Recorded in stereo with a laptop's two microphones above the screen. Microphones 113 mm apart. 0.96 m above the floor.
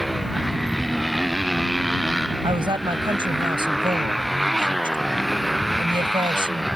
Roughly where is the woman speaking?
Right.